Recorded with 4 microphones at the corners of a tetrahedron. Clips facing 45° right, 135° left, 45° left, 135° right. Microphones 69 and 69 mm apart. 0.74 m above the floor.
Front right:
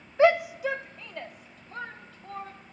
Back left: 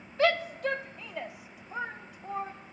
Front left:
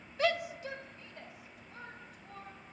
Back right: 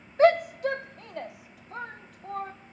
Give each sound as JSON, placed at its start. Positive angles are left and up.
{"t": 0.2, "sound": "a shout", "azimuth_deg": -100, "distance_m": 0.5}